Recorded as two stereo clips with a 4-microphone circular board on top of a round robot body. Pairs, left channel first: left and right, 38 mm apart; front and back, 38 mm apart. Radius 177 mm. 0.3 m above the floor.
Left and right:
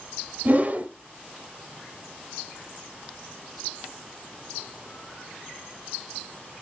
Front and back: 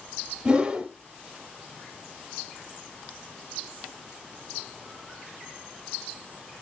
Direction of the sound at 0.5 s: 120° right.